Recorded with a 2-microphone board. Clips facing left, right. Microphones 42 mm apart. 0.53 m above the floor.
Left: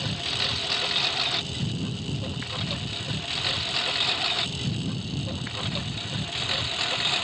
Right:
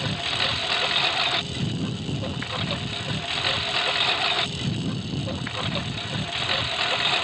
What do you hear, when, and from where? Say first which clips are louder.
0.0 s a lawn mower: right 3 dB; 20° right (ahead or behind)